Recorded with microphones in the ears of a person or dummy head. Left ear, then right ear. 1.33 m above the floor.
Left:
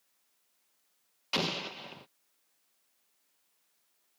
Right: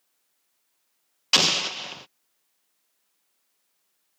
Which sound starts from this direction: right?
An explosion, at 1.3 s.